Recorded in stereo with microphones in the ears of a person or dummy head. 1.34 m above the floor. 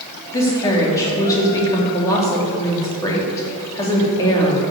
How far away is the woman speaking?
About 3 m.